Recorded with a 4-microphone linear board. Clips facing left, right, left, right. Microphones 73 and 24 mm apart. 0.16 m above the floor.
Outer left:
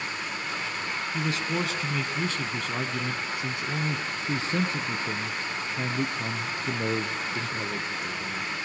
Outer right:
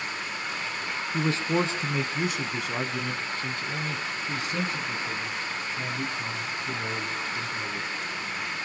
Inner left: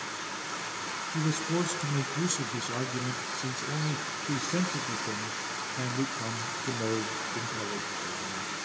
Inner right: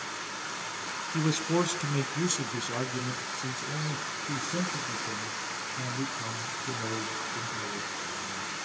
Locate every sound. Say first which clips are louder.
1.1 s a man speaking: outer right 5 dB, inner right 3 dB; 40° right (ahead or behind), 1.4 m; by 8.6 s 70° left (ahead or behind), 3 m